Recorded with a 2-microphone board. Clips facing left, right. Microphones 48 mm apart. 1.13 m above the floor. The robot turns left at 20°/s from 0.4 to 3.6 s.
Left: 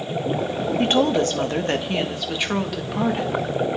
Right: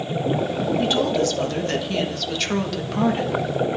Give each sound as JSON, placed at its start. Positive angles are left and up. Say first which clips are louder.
{"t": 0.8, "sound": "a woman speaking", "louder": "left 3 dB", "azimuth_deg": 50, "distance_m": 1.9}